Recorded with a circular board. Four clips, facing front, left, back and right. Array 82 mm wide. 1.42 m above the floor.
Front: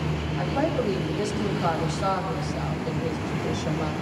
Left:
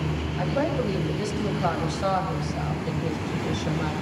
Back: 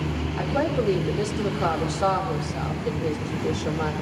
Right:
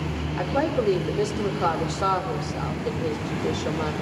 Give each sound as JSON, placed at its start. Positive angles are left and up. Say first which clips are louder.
{"t": 0.4, "sound": "a woman speaking", "louder": "right 2 dB, back 1 dB", "azimuth_deg": -125, "distance_m": 4.5}